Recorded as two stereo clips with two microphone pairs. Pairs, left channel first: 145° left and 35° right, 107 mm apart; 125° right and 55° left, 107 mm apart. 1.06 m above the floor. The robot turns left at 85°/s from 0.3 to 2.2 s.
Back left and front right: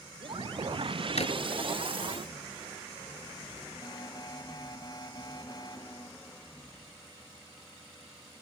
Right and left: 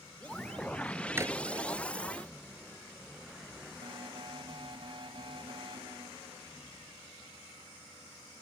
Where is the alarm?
95° left.